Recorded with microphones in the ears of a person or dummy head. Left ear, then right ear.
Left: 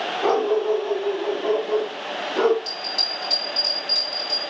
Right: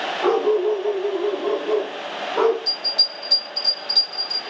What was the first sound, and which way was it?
A dog barking, 25° right (ahead or behind).